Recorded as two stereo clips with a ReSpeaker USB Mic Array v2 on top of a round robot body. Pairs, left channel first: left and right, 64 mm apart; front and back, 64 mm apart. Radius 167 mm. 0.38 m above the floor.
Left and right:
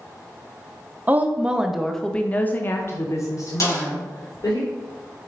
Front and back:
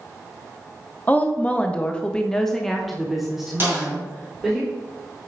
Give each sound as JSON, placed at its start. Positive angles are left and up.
{"t": 1.1, "sound": "a woman speaking", "azimuth_deg": -50, "distance_m": 1.0}
{"t": 3.6, "sound": "a snare drum", "azimuth_deg": 125, "distance_m": 2.5}